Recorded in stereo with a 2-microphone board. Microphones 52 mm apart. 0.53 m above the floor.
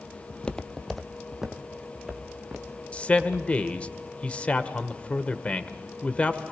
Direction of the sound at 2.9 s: 25° left (ahead or behind).